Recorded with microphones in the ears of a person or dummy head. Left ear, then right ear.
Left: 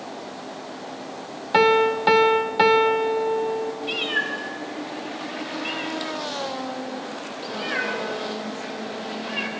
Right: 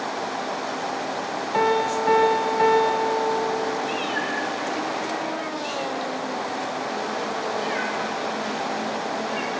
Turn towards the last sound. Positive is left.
turn(degrees=20)  # may be behind; listen again after turning